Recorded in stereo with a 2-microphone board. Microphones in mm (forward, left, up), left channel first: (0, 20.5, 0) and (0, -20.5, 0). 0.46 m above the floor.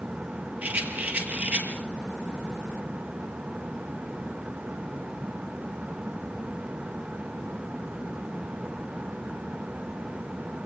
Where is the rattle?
45° right (ahead or behind), 5.5 m.